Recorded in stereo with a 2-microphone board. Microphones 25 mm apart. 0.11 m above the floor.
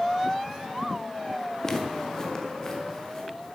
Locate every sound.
1.6 s footsteps: 25° left (ahead or behind), 1.6 m